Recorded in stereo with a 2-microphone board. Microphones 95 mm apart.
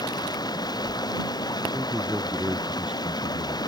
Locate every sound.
0.0 s running water: 45° left (ahead or behind)
1.7 s a man speaking: 10° right (ahead or behind)